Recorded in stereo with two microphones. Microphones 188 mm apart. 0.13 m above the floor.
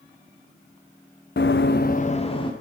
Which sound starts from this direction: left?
Running footsteps, at 1.4 s.